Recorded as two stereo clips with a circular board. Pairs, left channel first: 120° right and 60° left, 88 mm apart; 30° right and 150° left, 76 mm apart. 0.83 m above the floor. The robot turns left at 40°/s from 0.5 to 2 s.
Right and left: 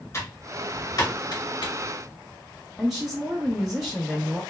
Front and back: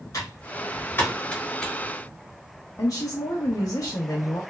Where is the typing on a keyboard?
70° right, 1.0 m; by 1.7 s 115° right, 1.0 m.